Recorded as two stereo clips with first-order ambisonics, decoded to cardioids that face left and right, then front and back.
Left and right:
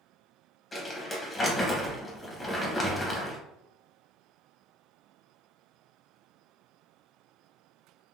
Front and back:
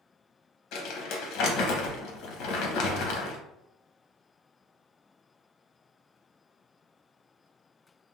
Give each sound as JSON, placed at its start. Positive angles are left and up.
{"t": 0.7, "sound": "crumpling", "azimuth_deg": 15, "distance_m": 1.2}